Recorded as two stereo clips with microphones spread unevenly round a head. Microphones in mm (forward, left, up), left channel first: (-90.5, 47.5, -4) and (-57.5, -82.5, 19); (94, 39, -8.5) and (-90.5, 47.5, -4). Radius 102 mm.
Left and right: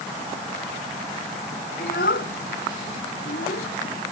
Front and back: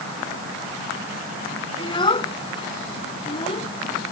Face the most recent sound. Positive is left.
turn(degrees=60)